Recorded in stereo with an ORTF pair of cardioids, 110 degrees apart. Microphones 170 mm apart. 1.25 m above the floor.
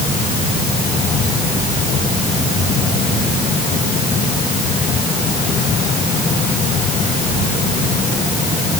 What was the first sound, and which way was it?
Only background noise.